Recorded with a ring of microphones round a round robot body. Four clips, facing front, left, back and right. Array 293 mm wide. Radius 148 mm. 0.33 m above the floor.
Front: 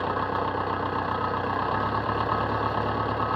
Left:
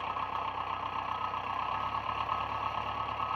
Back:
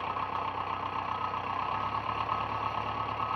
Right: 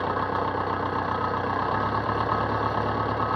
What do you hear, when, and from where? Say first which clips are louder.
0.0 s an engine running: right 9 dB, front 6 dB; 50° right